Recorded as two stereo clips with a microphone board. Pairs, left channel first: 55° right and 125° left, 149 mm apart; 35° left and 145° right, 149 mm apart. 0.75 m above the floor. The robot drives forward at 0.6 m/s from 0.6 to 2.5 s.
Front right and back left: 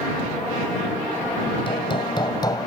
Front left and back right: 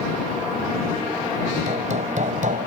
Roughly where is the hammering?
Right.